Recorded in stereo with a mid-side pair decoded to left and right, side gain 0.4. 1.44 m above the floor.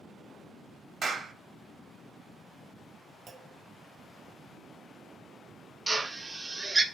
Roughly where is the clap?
Ahead right.